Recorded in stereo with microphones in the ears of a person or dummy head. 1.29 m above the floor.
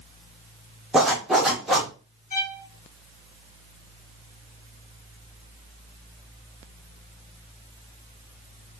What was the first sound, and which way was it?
A zipper, centre (ahead or behind).